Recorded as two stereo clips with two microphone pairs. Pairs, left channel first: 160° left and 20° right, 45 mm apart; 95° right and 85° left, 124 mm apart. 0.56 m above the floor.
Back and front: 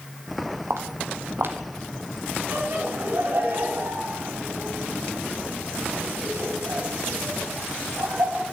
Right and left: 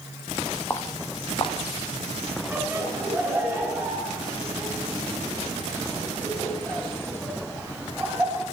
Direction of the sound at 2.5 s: Straight ahead.